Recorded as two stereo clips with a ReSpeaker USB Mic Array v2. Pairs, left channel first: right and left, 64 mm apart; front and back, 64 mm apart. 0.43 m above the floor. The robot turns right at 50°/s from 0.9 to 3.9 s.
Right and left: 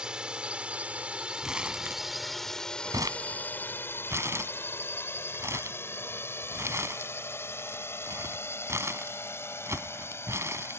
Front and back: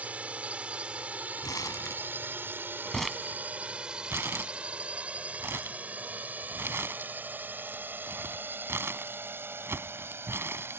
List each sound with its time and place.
0.0 s a drone: 150° left; by 10.8 s 135° right
1.4 s crumpling: 5° left; by 10.8 s 130° left